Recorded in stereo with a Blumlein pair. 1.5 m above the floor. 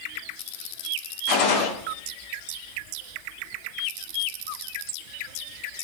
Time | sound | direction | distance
1.3 | a gunshot | 40° left | 0.5 m